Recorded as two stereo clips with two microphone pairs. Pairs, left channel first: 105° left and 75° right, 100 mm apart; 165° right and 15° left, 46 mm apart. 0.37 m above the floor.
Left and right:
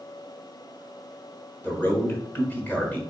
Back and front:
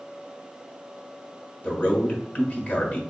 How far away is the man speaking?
About 1.1 m.